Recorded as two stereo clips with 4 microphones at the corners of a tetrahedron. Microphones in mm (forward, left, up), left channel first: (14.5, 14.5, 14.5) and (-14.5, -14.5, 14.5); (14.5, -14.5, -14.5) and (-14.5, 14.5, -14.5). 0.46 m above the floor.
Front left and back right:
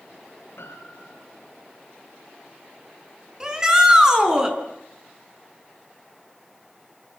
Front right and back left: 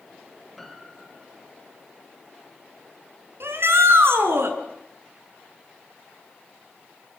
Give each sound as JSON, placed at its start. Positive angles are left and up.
{"t": 0.6, "sound": "a piano", "azimuth_deg": 45, "distance_m": 4.0}
{"t": 3.4, "sound": "a shout", "azimuth_deg": 150, "distance_m": 4.5}